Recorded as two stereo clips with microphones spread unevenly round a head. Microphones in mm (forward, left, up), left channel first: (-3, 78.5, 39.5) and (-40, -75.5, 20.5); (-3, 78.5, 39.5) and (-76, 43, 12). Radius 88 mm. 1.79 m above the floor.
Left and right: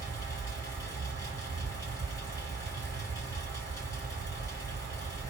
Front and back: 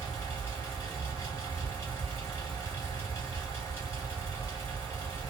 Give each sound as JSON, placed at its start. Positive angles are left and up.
{"t": 0.0, "sound": "a fan", "azimuth_deg": 20, "distance_m": 1.0}